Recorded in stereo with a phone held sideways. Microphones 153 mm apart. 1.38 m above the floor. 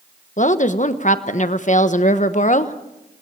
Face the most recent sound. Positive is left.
turn(degrees=55)  # may be behind; listen again after turning